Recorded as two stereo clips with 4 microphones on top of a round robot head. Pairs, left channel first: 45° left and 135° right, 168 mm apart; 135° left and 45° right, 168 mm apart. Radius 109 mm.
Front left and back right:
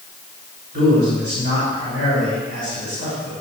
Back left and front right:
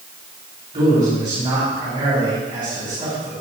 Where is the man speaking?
110° right, 5 m.